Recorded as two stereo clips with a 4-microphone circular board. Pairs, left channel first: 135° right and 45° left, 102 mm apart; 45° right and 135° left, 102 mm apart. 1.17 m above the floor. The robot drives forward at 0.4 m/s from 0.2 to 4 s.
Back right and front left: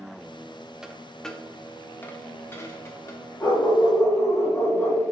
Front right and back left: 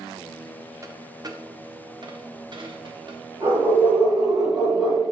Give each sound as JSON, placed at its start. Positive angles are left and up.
{"t": 0.8, "sound": "a dropped coin", "azimuth_deg": 125, "distance_m": 0.6}
{"t": 3.4, "sound": "a dog barking", "azimuth_deg": 170, "distance_m": 1.7}